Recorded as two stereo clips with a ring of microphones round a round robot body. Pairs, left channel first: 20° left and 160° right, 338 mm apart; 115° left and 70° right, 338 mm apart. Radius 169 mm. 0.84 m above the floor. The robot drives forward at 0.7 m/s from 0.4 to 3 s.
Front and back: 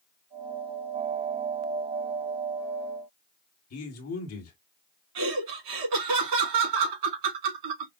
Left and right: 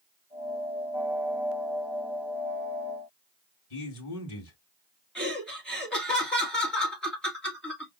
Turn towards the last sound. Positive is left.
turn(degrees=-160)